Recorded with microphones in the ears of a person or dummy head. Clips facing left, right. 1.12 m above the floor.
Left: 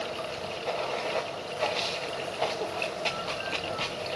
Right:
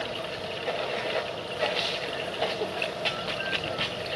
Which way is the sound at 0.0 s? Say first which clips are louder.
Right 1 dB; 15° right (ahead or behind).